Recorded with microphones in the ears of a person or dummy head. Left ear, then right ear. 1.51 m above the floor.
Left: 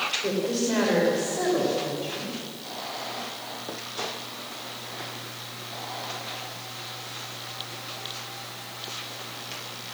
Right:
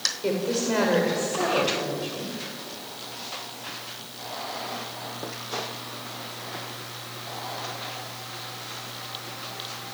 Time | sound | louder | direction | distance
0.2 | a woman speaking | right 1 dB | 15° right (ahead or behind) | 6.5 m